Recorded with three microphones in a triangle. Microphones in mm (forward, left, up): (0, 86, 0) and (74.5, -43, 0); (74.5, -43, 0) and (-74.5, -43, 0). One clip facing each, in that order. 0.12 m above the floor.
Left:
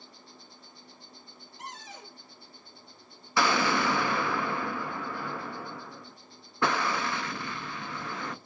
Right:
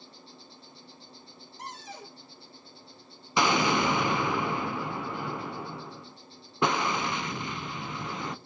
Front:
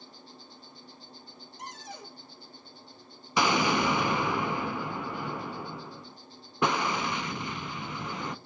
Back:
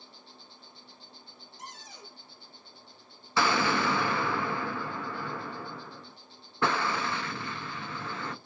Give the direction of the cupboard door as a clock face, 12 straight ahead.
12 o'clock.